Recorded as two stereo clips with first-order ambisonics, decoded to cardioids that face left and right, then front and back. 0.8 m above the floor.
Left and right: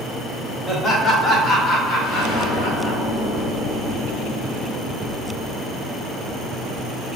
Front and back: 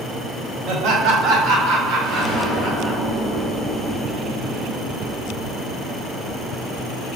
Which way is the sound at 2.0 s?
70° left.